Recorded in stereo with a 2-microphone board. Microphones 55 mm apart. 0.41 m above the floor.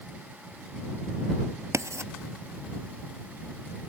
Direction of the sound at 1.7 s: 75° right (ahead or behind).